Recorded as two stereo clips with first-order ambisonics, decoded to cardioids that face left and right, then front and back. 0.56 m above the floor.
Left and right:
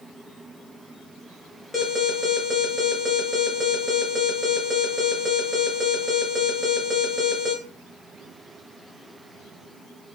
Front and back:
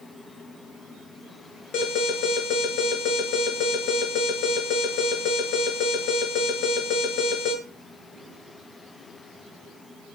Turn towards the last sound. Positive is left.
turn(degrees=25)